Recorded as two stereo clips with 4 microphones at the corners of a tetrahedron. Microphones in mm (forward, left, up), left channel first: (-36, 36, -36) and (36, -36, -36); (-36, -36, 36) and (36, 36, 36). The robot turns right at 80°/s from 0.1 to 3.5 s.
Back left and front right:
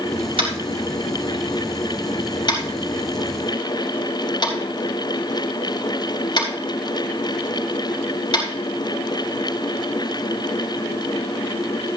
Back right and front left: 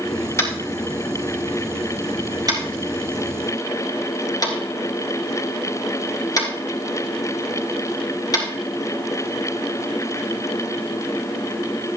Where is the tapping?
75° right, 3.5 m; by 8.4 s 175° left, 3.5 m.